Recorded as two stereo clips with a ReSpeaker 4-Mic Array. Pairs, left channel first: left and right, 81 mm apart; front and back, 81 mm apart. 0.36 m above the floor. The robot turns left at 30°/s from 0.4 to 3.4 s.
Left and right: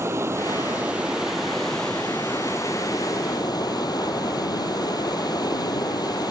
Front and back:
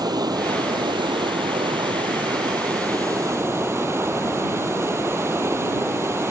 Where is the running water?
150° right; by 6.3 s 120° left.